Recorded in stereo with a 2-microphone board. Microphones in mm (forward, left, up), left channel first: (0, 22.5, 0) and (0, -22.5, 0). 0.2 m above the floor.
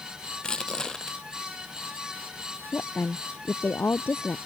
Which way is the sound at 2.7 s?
55° left (ahead or behind).